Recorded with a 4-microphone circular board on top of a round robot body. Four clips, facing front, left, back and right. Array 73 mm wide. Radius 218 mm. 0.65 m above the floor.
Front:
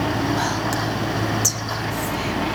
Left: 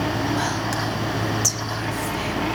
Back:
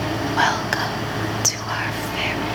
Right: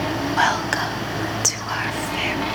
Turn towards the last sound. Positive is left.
turn(degrees=-125)